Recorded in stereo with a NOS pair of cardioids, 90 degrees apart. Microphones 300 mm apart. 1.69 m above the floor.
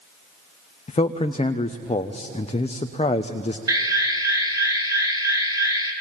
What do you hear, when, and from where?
0.9 s a man speaking: 20° left, 1.1 m
3.7 s an alarm: 10° right, 4 m